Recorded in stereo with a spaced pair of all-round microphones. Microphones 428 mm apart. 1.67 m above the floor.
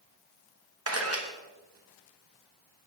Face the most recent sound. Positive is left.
turn(degrees=-35)  # may be behind; listen again after turning